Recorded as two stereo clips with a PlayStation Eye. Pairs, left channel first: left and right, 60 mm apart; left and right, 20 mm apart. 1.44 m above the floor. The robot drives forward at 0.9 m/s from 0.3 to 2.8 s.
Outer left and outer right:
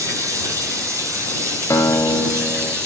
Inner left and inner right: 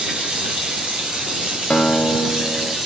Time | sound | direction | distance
0.0 | running water | 70° right (ahead or behind) | 3 m
1.7 | a guitar | 75° left (ahead or behind) | 1.3 m